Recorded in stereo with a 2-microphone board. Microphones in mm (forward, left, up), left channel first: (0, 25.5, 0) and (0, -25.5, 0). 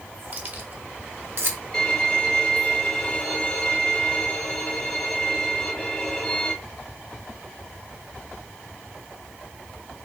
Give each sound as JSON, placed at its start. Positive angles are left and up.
{"t": 0.3, "sound": "keys jangling", "side_deg": -40, "distance_m": 1.1}
{"t": 1.7, "sound": "a violin", "side_deg": 20, "distance_m": 1.8}